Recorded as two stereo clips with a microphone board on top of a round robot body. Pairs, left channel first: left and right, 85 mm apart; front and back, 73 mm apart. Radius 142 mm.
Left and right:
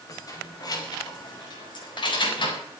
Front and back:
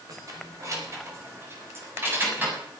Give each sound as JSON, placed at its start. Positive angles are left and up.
{"t": 0.1, "sound": "keys jangling", "azimuth_deg": 140, "distance_m": 5.0}